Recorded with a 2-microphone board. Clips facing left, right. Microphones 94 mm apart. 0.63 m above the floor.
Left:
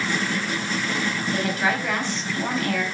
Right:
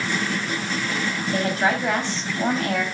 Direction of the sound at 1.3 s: 35° right (ahead or behind).